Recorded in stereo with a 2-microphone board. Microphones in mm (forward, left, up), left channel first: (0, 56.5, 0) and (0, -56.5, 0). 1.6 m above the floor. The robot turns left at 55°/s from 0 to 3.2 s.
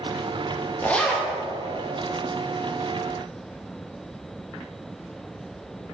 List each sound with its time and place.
0.8 s a zipper: 15° left (ahead or behind), 1.1 m; by 1.3 s 5° right (ahead or behind), 1.1 m